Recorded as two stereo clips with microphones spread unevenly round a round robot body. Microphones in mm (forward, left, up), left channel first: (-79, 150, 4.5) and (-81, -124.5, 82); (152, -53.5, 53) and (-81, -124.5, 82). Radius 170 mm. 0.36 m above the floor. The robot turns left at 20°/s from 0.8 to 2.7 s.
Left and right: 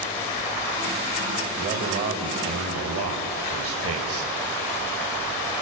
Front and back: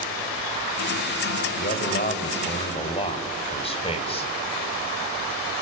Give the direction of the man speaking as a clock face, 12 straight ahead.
1 o'clock.